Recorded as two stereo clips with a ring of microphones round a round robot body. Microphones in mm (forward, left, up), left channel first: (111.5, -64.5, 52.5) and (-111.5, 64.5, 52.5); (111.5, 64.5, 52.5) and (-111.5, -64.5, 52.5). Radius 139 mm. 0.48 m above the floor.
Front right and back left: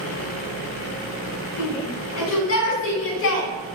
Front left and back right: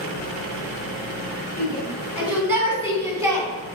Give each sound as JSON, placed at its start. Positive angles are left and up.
{"t": 1.6, "sound": "a shout", "azimuth_deg": -65, "distance_m": 6.5}